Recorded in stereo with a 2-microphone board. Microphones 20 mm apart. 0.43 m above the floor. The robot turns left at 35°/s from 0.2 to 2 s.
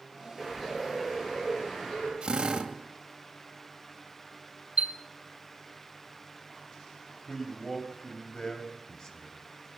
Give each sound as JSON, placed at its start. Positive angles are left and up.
{"t": 0.4, "sound": "a bird", "azimuth_deg": -170, "distance_m": 10.0}
{"t": 2.2, "sound": "a drill", "side_deg": -45, "distance_m": 2.0}
{"t": 4.8, "sound": "a chime", "side_deg": -80, "distance_m": 1.1}
{"t": 7.3, "sound": "a man speaking", "side_deg": 40, "distance_m": 3.0}